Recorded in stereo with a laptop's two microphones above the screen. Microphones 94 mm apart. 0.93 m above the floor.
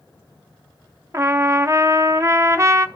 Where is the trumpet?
30° right (ahead or behind), 0.5 m.